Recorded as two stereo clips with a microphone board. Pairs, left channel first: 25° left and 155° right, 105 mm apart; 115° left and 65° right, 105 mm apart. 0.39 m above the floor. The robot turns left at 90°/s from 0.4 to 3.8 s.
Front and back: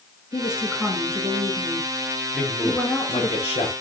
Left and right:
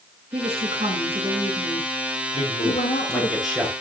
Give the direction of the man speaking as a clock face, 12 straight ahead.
8 o'clock.